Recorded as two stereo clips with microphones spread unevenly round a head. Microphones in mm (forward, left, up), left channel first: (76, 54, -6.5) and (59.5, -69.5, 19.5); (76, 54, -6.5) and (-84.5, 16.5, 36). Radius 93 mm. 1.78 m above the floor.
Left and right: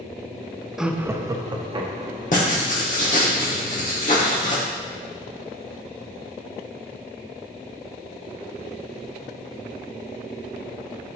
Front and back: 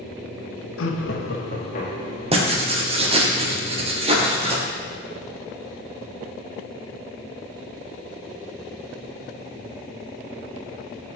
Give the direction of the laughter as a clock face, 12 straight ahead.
12 o'clock.